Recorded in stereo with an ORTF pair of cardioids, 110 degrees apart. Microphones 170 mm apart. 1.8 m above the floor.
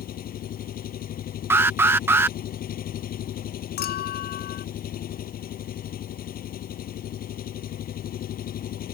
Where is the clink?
65° left.